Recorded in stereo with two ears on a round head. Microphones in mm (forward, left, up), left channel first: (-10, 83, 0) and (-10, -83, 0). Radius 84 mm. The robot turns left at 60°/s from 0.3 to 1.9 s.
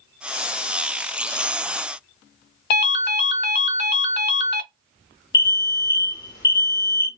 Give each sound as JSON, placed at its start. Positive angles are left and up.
{"t": 2.7, "sound": "a ringtone", "side_deg": 60, "distance_m": 0.6}
{"t": 5.3, "sound": "an alarm", "side_deg": 20, "distance_m": 1.2}